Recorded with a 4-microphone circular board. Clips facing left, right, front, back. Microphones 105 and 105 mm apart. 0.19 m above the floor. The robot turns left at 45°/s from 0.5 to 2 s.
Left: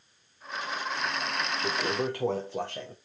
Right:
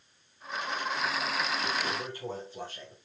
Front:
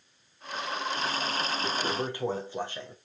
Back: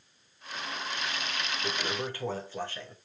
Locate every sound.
1.6 s a toilet flushing: 90° left, 2 m; by 3.0 s 70° left, 2 m